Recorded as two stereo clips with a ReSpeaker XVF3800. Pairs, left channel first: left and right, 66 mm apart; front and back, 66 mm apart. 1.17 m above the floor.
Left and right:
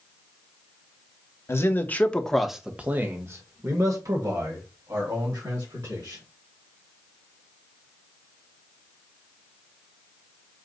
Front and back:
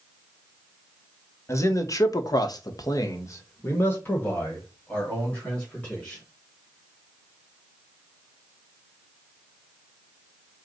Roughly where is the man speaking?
Ahead left.